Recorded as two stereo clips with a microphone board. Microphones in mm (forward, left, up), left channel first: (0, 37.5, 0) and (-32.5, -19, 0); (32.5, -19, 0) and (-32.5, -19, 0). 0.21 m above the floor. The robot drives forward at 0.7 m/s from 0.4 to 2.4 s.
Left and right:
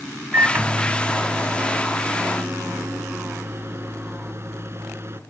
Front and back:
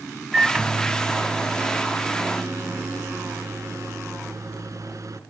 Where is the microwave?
115° right, 1.0 m; by 5.2 s 165° right, 1.9 m.